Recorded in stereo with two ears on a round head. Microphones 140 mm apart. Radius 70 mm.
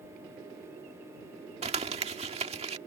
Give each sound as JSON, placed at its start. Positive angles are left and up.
{"t": 1.6, "sound": "crumpling", "side_deg": -40}